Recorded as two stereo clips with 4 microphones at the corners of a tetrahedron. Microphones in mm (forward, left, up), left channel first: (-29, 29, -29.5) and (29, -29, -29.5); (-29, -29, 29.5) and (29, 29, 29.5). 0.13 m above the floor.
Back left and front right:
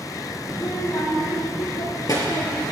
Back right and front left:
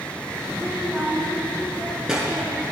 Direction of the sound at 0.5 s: 130° left.